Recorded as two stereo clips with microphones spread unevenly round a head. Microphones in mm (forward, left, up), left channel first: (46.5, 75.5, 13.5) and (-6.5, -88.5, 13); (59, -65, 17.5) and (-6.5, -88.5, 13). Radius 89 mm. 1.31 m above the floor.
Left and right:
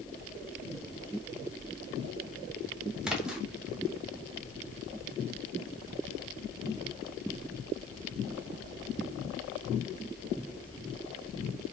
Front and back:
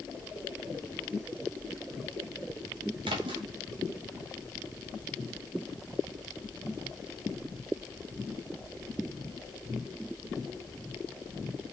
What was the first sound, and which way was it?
A splash, 165° left.